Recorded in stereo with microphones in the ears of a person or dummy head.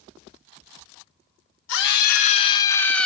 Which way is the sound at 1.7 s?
70° left (ahead or behind).